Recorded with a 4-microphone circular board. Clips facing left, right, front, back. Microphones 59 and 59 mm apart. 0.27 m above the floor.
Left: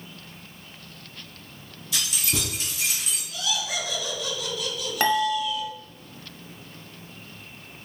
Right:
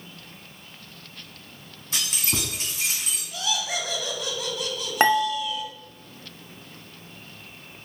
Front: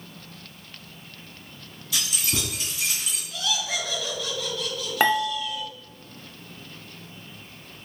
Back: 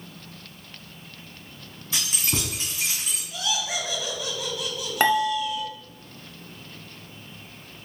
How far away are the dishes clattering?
About 0.7 m.